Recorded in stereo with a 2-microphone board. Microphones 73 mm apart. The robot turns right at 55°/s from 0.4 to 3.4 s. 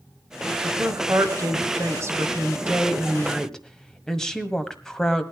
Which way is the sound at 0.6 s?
140° right.